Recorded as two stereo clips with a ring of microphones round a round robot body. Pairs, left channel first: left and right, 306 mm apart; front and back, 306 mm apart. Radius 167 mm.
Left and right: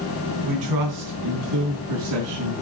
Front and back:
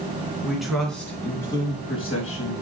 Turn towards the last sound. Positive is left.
turn(degrees=-60)